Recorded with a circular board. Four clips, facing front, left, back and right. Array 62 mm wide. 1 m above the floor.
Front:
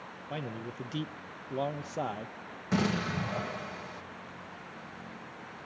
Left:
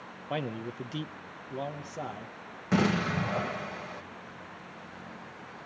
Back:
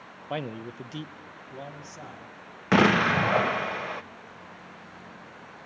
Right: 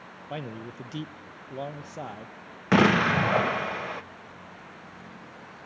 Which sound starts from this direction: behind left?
A man speaking, at 0.3 s.